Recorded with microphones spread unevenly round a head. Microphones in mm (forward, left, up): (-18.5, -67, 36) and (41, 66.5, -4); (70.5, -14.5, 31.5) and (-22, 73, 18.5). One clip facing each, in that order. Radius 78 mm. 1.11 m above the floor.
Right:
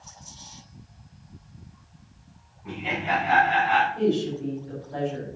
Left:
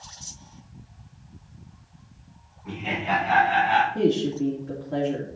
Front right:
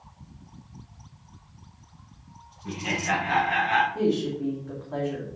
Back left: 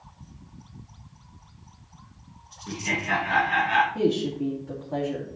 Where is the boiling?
I don't hear boiling.